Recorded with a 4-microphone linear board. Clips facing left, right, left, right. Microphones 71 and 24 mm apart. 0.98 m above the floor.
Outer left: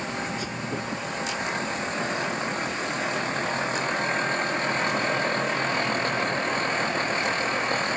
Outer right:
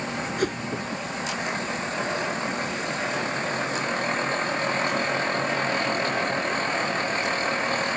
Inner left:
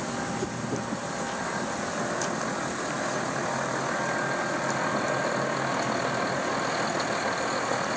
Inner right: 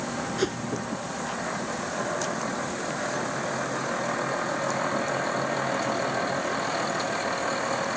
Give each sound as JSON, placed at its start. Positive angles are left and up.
{"t": 0.4, "sound": "a whoosh", "side_deg": -60}